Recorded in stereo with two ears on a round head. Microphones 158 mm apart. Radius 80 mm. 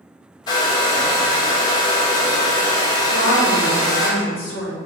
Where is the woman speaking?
80° left, 2.5 m.